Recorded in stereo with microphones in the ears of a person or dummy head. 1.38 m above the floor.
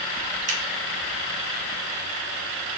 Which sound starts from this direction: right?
Scissors, at 0.5 s.